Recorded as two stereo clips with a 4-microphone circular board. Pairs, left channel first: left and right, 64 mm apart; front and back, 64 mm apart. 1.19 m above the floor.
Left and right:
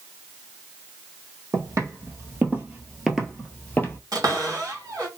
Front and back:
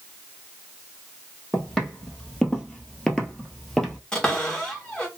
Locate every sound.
1.5 s footsteps: 80° right, 2 m; by 4.0 s 85° left, 1.4 m
4.1 s a cupboard door: 75° right, 1.7 m